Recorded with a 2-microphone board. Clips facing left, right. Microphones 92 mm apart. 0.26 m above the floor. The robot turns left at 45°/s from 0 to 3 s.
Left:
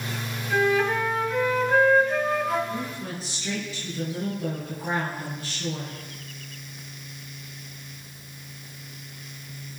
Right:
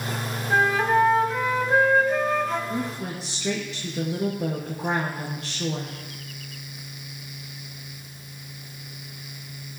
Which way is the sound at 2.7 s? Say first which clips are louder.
Right 3 dB; 75° right (ahead or behind).